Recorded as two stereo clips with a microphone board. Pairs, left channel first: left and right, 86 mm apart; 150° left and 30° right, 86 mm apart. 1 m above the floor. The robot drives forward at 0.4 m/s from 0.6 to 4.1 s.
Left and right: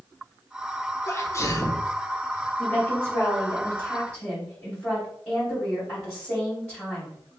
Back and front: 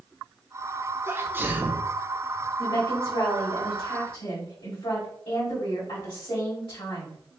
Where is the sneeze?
30° left, 1.1 m; by 2.0 s 45° left, 0.8 m.